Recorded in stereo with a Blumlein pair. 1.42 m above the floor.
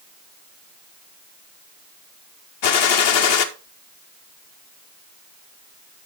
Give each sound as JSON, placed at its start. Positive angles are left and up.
{"t": 2.6, "sound": "a gunshot", "azimuth_deg": 50, "distance_m": 0.8}